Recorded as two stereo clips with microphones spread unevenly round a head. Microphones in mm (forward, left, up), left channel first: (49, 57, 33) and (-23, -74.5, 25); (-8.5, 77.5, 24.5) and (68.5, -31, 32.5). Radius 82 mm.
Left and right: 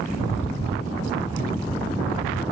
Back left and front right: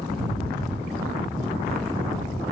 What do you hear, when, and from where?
0.1 s a rattle: 120° left, 7 m